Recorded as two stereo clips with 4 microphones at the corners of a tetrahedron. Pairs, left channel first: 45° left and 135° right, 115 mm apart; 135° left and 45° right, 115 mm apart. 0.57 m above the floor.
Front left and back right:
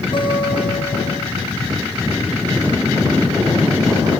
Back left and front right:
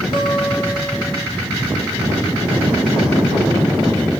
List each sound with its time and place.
0.1 s a guitar: 90° left, 3.5 m